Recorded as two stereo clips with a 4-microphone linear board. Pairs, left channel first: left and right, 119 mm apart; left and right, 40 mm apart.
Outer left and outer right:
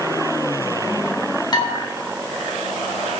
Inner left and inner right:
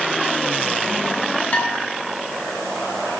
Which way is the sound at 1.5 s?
40° left (ahead or behind).